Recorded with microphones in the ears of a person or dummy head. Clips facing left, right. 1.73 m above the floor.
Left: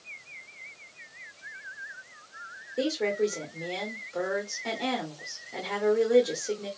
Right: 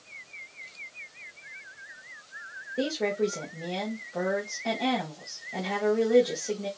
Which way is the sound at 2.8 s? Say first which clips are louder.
Left 1 dB; centre (ahead or behind).